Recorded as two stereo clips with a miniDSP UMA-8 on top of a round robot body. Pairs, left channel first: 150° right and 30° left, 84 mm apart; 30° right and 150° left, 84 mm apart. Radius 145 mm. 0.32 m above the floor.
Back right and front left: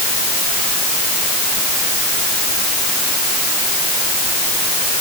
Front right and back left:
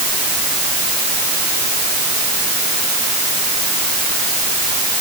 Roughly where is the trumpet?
No trumpet in this recording.